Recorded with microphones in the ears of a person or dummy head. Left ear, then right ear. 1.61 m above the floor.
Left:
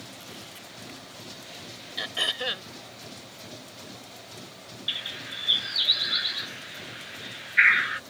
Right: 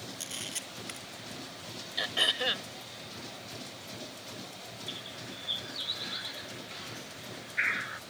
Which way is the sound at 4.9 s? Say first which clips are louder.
Left 12 dB; 35° left (ahead or behind).